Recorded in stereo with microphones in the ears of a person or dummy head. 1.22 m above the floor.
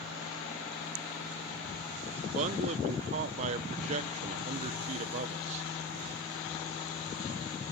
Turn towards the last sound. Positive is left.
turn(degrees=-35)  # may be behind; listen again after turning